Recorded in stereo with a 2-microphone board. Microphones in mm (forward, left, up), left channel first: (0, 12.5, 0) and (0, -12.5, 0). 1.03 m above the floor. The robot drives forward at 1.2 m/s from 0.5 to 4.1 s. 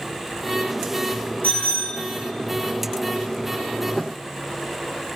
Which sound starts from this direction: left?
A bicycle bell, at 1.4 s.